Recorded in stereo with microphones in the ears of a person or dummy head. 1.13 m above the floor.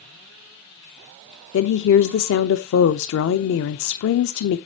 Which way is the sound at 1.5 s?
65° left (ahead or behind).